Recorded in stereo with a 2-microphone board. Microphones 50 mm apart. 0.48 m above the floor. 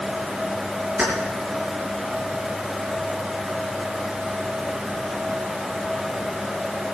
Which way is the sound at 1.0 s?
25° right (ahead or behind).